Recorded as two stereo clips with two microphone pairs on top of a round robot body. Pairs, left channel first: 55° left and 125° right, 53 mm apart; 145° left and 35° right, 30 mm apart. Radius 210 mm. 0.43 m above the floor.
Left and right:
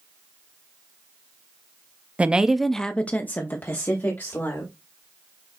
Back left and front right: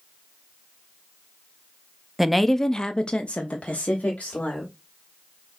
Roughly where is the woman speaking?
Right.